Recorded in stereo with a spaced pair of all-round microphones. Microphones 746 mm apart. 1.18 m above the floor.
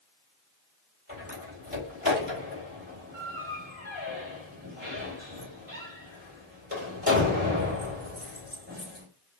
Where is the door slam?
10° right (ahead or behind), 3 m.